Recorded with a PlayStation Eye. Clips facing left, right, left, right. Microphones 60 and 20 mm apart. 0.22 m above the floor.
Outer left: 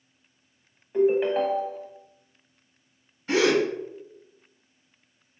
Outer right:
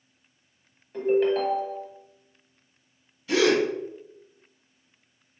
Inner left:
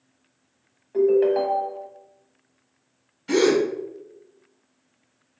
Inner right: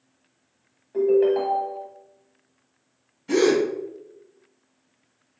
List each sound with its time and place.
0.9 s a ringtone: 15° left (ahead or behind), 0.7 m
3.3 s a gasp: 45° left (ahead or behind), 1.3 m